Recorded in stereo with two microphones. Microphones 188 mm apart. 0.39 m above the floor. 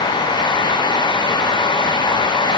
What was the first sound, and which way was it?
Only background noise.